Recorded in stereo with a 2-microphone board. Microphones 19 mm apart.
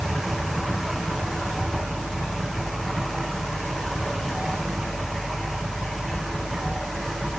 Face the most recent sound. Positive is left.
No sound to turn to.